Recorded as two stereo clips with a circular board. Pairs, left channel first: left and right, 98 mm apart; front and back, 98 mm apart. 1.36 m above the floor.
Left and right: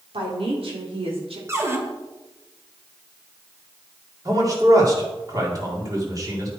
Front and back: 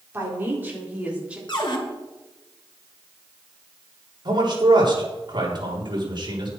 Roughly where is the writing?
I don't hear writing.